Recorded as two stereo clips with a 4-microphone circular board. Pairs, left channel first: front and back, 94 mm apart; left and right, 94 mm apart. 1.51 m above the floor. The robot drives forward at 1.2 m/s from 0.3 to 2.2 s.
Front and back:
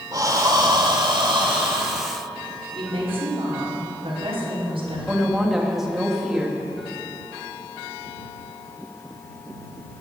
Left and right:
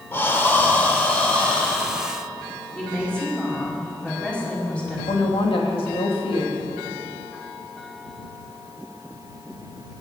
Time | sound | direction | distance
0.1 | breathing | 150° left | 1.6 m
2.8 | a woman speaking | 170° left | 4.5 m
5.1 | a woman speaking | 95° left | 2.5 m